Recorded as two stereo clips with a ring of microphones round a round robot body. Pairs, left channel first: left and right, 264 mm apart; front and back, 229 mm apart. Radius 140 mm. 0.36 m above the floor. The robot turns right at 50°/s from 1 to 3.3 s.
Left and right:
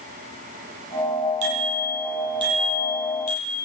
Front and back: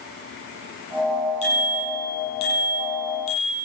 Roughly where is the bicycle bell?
Ahead right.